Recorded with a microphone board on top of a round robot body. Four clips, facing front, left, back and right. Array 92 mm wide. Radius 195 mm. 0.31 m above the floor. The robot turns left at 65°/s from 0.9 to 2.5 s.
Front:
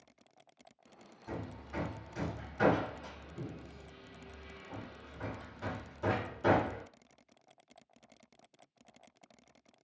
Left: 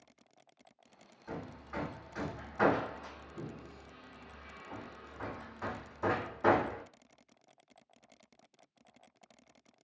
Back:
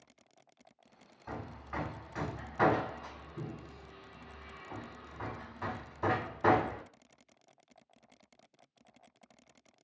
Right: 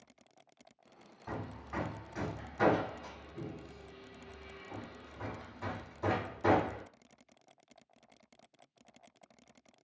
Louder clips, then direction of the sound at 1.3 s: Right 1 dB, back 1 dB; 125° right.